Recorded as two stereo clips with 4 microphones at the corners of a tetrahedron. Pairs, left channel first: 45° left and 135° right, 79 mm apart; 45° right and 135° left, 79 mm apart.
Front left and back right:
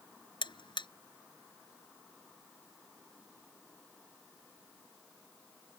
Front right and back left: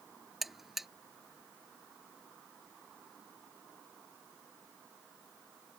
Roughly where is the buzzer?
Ahead left.